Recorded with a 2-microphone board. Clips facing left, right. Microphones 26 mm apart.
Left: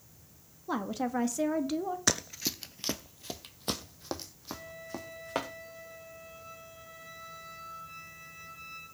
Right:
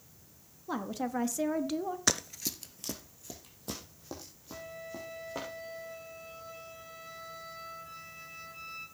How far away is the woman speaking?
About 0.7 m.